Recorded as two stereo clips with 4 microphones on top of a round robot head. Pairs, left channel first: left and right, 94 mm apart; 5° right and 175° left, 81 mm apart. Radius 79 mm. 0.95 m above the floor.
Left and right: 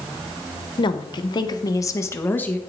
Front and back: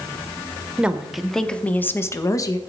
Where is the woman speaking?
100° left, 1.2 m; by 2.6 s 20° left, 1.1 m.